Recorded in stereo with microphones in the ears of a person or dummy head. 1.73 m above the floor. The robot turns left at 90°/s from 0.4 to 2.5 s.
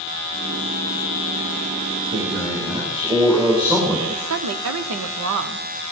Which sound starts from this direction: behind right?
A man speaking, at 2.1 s.